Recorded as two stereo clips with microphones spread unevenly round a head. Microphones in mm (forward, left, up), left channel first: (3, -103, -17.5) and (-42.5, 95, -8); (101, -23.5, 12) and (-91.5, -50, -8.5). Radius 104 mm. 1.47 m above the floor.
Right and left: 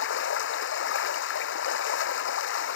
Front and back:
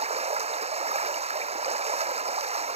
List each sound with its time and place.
0.0 s running water: 110° right